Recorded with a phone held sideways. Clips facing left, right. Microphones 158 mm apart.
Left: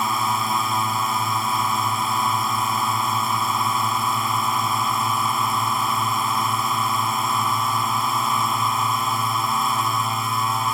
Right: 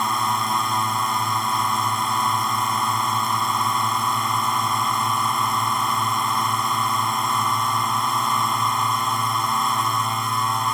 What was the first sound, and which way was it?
A drone, centre (ahead or behind).